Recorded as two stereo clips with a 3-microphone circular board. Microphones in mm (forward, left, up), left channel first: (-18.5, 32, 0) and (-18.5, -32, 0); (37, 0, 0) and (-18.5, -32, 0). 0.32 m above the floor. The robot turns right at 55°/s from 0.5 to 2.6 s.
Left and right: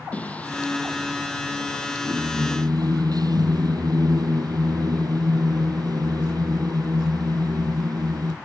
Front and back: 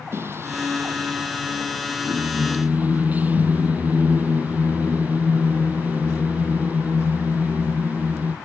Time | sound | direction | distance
0.1 | singing | 160° left | ?